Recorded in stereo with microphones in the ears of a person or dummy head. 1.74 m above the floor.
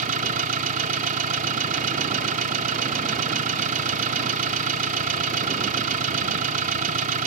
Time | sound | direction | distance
0.0 | an engine running | 50° right (ahead or behind) | ?